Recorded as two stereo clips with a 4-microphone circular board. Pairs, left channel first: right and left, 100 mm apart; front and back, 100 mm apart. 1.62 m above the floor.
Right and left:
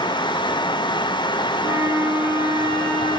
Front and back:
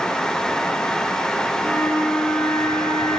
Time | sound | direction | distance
1.6 | a flute | 70° left | 0.7 m